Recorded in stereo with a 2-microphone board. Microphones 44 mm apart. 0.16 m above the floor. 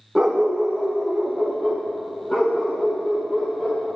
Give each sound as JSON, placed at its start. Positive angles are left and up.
{"t": 0.1, "sound": "a dog barking", "side_deg": -15, "distance_m": 2.5}